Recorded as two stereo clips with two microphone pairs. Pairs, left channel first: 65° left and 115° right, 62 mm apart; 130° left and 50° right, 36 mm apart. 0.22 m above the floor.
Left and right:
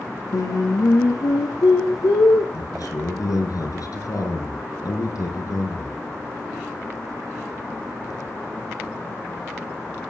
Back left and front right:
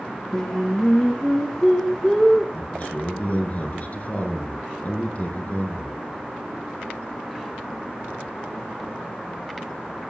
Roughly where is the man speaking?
Left.